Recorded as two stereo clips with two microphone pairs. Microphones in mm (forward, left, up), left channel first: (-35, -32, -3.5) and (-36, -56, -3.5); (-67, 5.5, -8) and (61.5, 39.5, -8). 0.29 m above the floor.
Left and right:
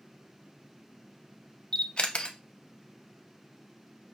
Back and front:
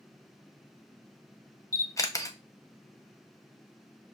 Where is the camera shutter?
135° left, 0.6 m.